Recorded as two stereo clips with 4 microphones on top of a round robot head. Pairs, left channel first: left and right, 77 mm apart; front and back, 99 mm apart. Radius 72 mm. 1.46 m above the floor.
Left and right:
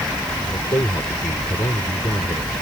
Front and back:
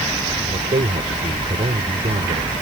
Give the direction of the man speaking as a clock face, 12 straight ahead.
7 o'clock.